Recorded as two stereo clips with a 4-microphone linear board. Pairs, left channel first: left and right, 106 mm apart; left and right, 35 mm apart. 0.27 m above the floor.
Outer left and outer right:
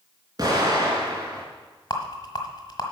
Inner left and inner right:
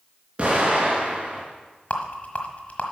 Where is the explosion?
40° right (ahead or behind), 3.5 m.